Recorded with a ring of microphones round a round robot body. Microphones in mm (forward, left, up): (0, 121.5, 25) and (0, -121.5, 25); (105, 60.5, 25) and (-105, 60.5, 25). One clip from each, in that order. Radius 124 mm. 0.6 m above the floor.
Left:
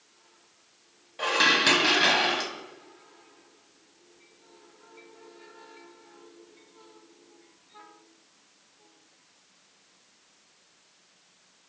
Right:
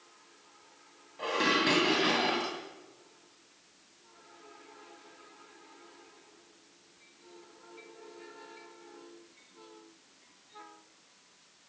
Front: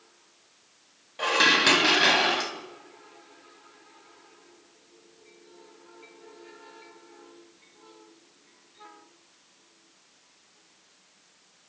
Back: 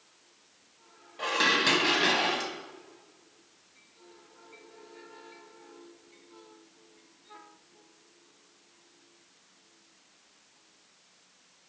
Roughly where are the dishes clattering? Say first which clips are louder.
Left 6 dB, front 5 dB; ahead left.